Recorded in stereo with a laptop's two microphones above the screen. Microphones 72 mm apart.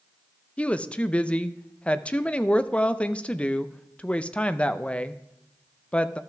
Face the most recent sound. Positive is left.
turn(degrees=15)  # may be behind; listen again after turning